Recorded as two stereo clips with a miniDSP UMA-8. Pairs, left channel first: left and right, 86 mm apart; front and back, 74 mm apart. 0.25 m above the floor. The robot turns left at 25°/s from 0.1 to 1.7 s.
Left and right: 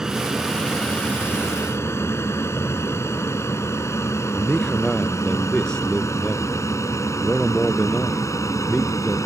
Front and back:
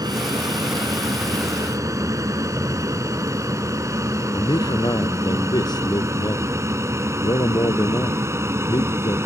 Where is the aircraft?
175° right; by 9.3 s 135° left.